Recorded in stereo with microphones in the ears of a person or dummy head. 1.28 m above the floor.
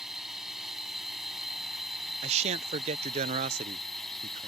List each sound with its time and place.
0.0 s a drone: 5° right (ahead or behind); by 4.5 s centre (ahead or behind)
2.2 s a man speaking: 40° right (ahead or behind)